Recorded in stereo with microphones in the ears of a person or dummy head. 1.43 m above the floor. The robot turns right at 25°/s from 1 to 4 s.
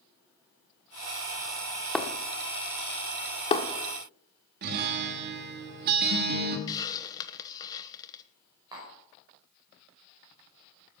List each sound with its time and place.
1.9 s breaking glass: 5° left (ahead or behind), 1.2 m; by 3.7 s 35° left (ahead or behind), 1.2 m
4.6 s a guitar: 50° right (ahead or behind), 1.3 m
6.7 s a hiss: 20° left (ahead or behind), 1.0 m
8.7 s tapping: 20° right (ahead or behind), 5 m